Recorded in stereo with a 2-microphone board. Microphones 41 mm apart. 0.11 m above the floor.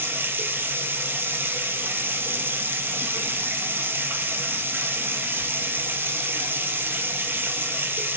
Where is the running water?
65° right (ahead or behind), 0.7 m.